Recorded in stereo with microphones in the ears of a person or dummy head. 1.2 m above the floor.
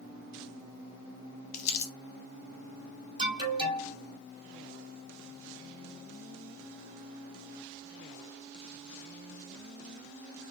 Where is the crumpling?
40° left (ahead or behind), 0.8 m.